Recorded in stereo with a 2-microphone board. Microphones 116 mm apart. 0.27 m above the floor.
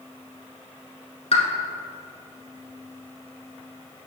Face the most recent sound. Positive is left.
turn(degrees=60)  # may be behind; listen again after turning